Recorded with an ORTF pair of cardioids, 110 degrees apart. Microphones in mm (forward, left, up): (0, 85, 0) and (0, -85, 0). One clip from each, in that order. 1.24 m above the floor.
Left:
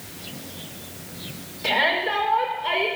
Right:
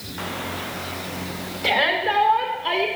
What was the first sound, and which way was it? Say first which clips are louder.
A shout: right 1 dB; 35° right.